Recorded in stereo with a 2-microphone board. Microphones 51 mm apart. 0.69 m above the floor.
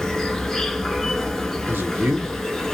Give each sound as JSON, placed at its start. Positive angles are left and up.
{"t": 0.0, "sound": "an insect", "side_deg": 10, "distance_m": 0.7}
{"t": 1.7, "sound": "a man speaking", "side_deg": -55, "distance_m": 1.0}